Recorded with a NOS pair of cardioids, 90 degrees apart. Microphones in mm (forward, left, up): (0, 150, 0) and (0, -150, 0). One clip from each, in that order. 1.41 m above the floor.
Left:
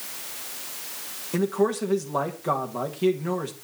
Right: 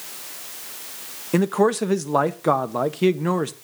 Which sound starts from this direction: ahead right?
A man speaking, at 1.3 s.